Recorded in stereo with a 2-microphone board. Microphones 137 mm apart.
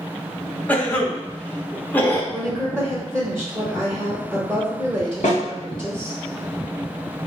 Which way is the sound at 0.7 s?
15° left (ahead or behind).